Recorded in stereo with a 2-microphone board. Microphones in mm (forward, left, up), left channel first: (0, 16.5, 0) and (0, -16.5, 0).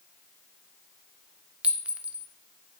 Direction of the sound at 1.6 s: 40° right (ahead or behind).